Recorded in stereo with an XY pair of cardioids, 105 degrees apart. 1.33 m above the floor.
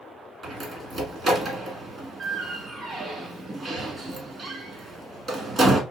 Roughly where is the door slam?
Ahead right.